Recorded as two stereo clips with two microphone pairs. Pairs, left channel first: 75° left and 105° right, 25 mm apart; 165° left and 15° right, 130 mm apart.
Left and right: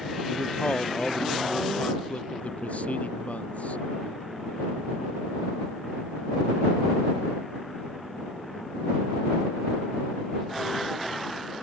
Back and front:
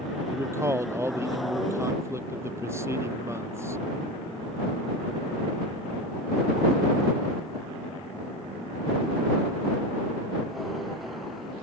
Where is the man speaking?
55° left.